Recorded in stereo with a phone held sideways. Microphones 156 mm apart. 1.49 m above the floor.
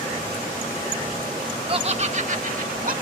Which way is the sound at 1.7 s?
35° right (ahead or behind).